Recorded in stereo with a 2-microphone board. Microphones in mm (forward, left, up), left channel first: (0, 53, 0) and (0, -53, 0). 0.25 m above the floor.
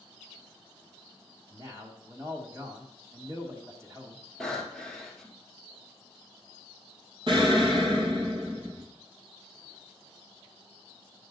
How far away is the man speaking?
About 1.8 m.